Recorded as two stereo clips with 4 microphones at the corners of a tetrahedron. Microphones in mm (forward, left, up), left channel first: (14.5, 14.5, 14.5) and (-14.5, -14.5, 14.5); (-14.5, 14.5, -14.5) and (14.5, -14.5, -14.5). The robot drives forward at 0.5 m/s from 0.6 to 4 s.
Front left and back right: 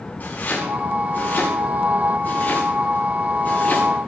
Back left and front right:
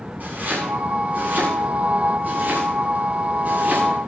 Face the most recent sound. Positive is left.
turn(degrees=0)